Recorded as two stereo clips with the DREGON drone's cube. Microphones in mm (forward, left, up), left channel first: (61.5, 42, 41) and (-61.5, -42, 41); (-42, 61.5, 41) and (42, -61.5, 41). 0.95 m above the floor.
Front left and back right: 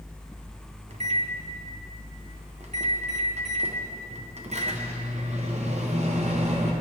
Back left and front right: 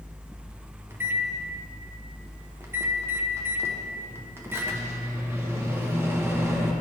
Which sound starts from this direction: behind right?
A microwave, at 0.9 s.